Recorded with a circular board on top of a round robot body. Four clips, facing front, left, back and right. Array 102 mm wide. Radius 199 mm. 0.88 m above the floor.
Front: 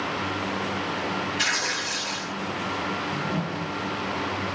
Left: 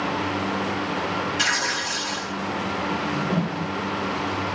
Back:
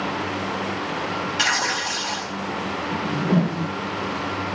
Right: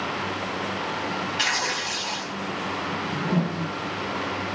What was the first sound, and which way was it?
Tearing paper, 170° right.